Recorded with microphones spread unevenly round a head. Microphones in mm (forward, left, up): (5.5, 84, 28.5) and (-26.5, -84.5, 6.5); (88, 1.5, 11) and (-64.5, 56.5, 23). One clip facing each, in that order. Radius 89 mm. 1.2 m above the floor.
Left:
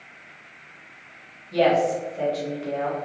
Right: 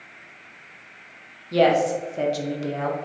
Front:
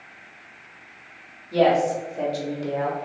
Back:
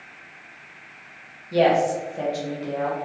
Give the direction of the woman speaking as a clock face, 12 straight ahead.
4 o'clock.